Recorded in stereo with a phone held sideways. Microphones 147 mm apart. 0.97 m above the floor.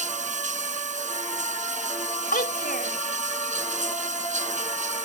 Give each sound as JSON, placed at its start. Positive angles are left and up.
{"t": 0.0, "sound": "running water", "side_deg": -55}
{"t": 2.3, "sound": "a child speaking", "side_deg": 80}